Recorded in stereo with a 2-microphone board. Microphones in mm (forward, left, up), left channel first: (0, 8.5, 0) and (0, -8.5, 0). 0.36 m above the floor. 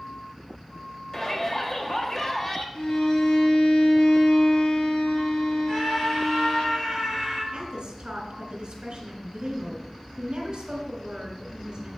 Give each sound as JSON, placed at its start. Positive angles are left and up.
{"t": 1.1, "sound": "a shout", "side_deg": 30, "distance_m": 1.1}
{"t": 2.8, "sound": "a violin", "side_deg": 60, "distance_m": 1.5}
{"t": 5.7, "sound": "a scream", "side_deg": -5, "distance_m": 2.0}
{"t": 7.5, "sound": "a woman speaking", "side_deg": -50, "distance_m": 2.5}